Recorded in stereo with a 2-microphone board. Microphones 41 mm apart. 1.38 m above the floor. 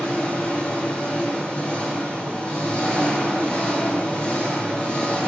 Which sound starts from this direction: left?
An engine running, at 0.0 s.